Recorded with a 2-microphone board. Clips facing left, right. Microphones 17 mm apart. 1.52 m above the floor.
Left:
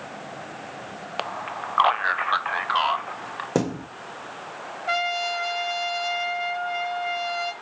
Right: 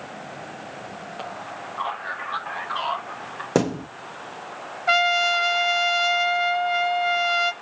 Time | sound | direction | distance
1.2 | a man speaking | 55° left (ahead or behind) | 0.9 m
3.5 | a thud | 25° right (ahead or behind) | 0.9 m
4.9 | a trumpet | 25° right (ahead or behind) | 0.9 m